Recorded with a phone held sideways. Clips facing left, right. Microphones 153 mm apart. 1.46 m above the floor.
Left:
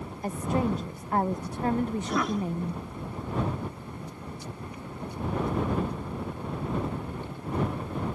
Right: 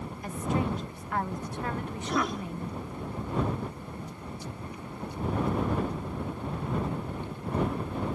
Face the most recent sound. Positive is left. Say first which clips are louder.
# left 2 dB
turn(degrees=0)  # may be behind; listen again after turning